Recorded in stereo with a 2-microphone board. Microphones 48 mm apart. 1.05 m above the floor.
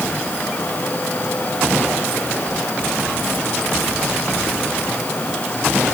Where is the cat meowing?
I don't hear a cat meowing.